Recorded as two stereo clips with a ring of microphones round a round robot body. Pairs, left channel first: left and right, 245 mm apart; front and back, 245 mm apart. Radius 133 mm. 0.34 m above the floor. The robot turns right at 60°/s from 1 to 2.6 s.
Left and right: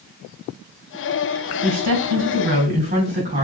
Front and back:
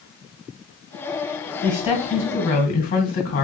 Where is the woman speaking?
110° right, 2.5 m; by 3.5 s 50° right, 2.5 m.